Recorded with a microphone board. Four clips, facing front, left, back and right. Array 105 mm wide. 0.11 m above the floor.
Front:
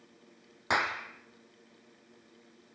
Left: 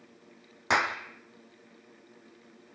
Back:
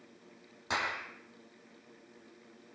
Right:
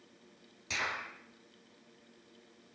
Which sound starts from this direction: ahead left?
A clap, at 0.7 s.